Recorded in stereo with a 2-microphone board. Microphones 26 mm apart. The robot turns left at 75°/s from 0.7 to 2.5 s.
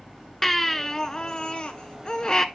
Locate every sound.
0.4 s a baby crying: 165° left, 0.6 m; by 2.5 s 35° left, 0.6 m